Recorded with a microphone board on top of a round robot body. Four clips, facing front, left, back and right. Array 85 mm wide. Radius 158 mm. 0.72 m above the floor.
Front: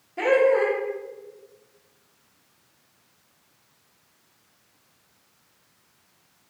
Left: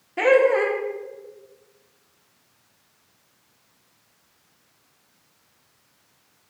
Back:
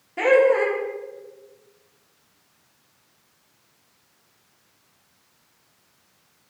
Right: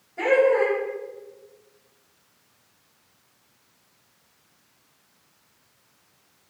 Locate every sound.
0.2 s laughter: 115° left, 1.0 m